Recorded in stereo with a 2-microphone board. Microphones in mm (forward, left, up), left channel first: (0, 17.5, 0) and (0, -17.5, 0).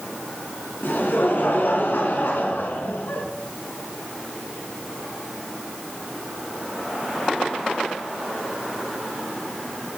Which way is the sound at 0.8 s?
75° left (ahead or behind).